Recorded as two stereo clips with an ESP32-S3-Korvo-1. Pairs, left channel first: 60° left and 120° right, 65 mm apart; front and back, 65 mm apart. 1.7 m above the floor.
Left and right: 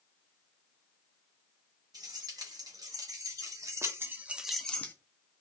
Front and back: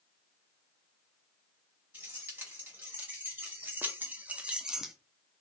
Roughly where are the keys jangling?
Behind right.